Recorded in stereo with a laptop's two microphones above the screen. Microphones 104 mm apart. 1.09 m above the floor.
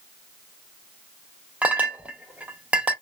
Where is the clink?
10° right (ahead or behind), 0.5 m.